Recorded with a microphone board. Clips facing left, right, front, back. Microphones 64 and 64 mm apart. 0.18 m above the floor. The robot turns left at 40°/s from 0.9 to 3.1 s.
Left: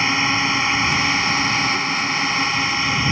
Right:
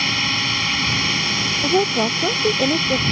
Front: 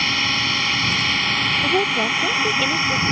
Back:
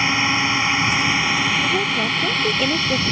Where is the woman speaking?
65° right; by 3.0 s 120° right.